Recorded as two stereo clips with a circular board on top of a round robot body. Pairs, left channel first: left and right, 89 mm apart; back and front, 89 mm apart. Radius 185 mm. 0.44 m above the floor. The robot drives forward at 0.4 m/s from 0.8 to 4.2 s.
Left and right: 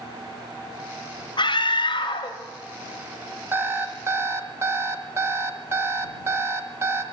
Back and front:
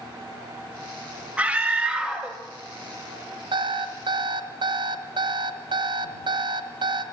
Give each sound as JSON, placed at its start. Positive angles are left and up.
{"t": 1.4, "sound": "a scream", "azimuth_deg": 80, "distance_m": 1.5}
{"t": 3.5, "sound": "an alarm clock", "azimuth_deg": -25, "distance_m": 1.7}